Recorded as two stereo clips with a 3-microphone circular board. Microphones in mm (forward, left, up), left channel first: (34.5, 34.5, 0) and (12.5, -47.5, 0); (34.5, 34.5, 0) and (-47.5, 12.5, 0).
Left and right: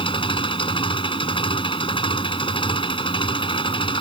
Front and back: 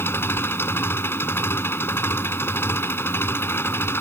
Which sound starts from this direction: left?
An engine running, at 0.0 s.